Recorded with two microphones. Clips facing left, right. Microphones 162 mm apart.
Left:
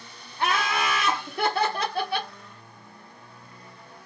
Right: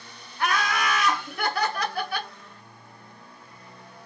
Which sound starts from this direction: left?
Laughter, at 0.4 s.